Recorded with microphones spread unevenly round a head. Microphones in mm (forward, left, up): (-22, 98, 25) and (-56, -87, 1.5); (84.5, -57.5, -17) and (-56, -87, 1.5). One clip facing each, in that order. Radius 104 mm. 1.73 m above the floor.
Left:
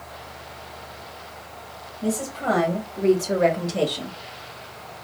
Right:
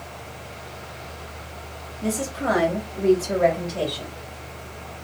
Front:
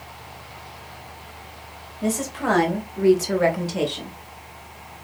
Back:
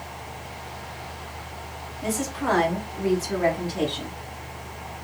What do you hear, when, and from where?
2.0 s a woman speaking: 30° right, 1.6 m; by 4.2 s 50° left, 1.0 m